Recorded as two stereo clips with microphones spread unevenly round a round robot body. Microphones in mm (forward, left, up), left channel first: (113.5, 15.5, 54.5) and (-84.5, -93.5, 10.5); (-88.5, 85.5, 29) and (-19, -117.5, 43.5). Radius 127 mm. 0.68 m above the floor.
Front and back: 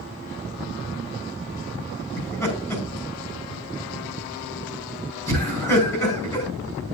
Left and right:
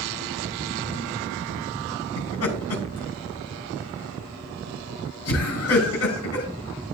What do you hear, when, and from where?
2.2 s laughter: 110° left, 5 m